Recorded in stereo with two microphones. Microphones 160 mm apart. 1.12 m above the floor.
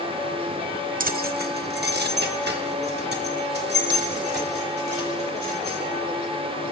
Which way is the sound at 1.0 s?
55° right (ahead or behind).